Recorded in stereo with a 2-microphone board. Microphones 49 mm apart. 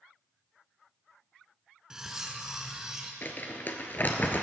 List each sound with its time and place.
1.9 s cutlery clinking: 15° right (ahead or behind), 1.2 m
3.2 s crumpling: 45° left (ahead or behind), 1.2 m